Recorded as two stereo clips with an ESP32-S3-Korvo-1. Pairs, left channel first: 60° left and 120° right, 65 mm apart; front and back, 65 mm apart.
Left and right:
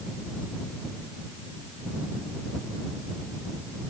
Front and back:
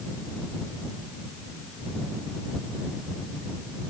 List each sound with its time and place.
Only background noise.